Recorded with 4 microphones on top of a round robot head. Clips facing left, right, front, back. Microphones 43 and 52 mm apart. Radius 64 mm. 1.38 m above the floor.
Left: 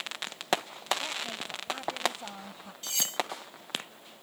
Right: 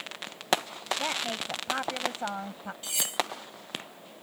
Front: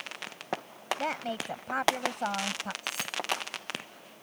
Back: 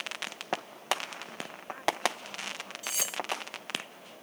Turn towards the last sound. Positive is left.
turn(degrees=-170)